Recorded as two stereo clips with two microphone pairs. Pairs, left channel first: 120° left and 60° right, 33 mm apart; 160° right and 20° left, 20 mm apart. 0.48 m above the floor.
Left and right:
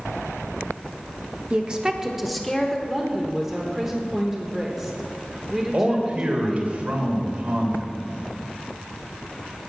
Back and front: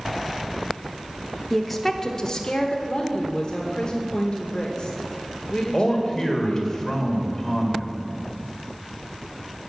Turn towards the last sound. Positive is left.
turn(degrees=-90)